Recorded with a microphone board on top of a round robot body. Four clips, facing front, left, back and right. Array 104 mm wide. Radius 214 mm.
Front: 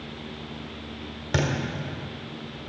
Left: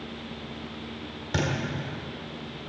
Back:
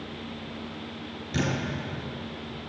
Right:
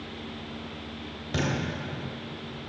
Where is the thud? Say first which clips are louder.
Left 1 dB, front 2 dB; 5° left, 1.6 m.